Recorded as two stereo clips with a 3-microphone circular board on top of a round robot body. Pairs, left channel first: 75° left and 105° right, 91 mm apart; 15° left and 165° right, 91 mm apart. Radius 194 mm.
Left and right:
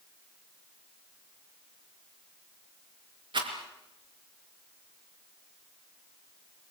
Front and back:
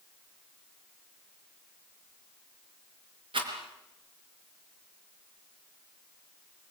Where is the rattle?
135° right, 4 m.